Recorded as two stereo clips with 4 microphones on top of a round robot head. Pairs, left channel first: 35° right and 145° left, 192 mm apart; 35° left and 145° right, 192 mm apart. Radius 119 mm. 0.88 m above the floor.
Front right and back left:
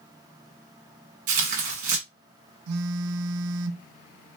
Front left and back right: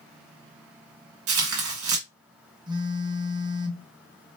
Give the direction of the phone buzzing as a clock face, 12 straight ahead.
7 o'clock.